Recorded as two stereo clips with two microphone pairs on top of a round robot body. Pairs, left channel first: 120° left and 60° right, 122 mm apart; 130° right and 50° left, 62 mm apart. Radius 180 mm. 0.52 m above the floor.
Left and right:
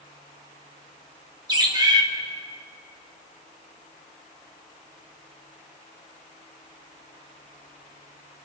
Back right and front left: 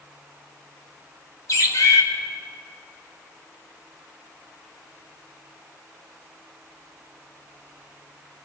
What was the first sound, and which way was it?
A bird, 110° right.